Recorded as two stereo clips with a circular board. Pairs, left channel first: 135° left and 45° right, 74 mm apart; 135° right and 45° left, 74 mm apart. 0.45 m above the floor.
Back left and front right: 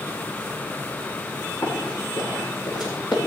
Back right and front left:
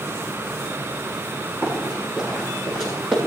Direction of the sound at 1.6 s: 120° left.